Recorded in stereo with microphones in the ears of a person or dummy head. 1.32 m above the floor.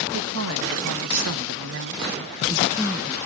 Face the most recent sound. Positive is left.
turn(degrees=-5)  # may be behind; listen again after turning